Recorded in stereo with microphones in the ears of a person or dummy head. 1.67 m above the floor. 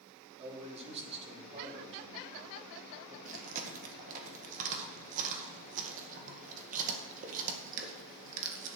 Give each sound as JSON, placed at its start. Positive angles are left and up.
{"t": 0.4, "sound": "a man speaking", "side_deg": -35, "distance_m": 3.0}
{"t": 3.2, "sound": "chewing", "side_deg": -45, "distance_m": 2.0}